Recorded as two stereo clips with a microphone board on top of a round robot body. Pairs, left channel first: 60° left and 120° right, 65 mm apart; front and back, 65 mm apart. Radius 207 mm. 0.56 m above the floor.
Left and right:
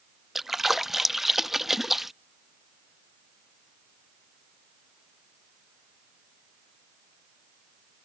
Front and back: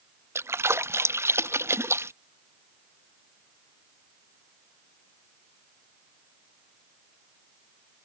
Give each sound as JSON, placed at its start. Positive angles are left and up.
{"t": 0.3, "sound": "a splash", "azimuth_deg": 155}